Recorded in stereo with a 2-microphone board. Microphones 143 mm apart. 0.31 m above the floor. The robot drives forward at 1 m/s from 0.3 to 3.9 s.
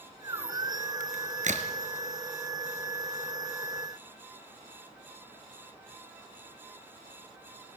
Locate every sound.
1.0 s a crack: 70° right (ahead or behind), 2.5 m; by 1.7 s 55° right (ahead or behind), 2.5 m